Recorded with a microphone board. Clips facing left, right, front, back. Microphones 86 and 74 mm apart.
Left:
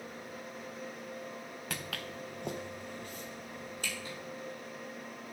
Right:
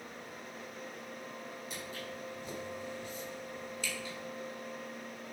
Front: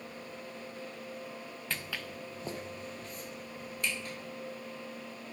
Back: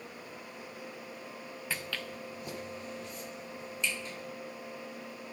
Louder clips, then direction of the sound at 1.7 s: Left 4 dB, back 1 dB; 100° left.